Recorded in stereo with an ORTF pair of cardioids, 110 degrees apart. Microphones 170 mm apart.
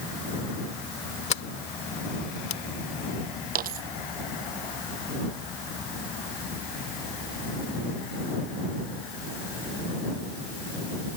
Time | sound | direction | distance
1.3 | a sliding door | 40° left | ?
3.5 | a dropped coin | 60° right | ?